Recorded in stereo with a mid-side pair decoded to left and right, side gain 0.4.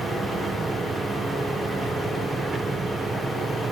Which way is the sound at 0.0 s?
45° right.